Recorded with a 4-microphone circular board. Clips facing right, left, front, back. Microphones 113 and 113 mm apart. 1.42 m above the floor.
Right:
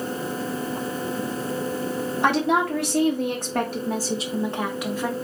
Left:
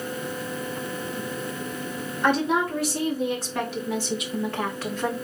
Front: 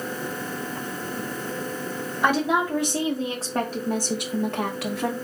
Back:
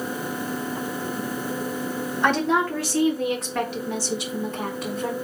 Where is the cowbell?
No cowbell in this recording.